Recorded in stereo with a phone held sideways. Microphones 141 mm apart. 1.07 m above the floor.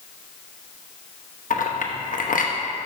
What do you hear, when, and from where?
1.5 s a clink: 80° left, 0.7 m